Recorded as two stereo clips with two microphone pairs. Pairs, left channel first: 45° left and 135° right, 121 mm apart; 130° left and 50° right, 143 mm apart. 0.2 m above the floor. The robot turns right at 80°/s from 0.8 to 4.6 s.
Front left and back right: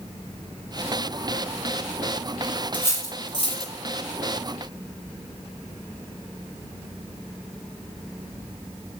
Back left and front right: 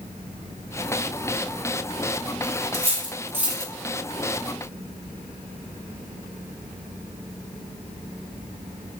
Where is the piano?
No piano in this recording.